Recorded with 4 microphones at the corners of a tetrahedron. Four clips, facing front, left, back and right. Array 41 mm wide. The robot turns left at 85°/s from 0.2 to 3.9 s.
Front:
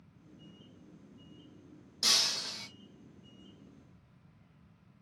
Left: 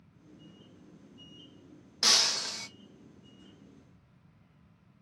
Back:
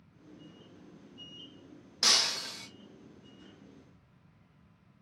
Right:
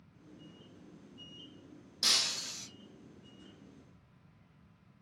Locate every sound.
2.0 s breaking glass: 140° left, 0.6 m; by 2.7 s 80° left, 0.6 m